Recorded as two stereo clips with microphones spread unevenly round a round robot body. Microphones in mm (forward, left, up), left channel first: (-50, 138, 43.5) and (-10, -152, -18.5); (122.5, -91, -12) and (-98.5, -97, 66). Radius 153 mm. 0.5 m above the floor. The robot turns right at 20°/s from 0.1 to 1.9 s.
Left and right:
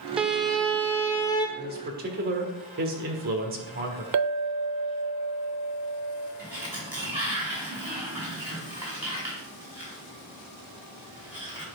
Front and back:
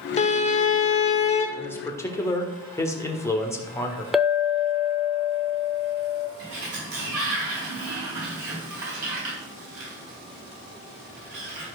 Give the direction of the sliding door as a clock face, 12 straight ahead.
5 o'clock.